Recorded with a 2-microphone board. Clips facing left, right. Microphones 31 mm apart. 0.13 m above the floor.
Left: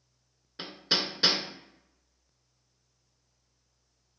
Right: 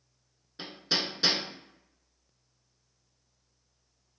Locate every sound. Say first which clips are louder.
0.6 s hammering: left 1 dB; 25° left (ahead or behind), 0.5 m